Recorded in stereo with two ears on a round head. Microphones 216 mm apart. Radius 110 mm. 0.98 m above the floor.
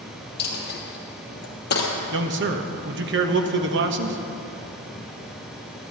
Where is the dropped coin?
45° left (ahead or behind), 2.5 m.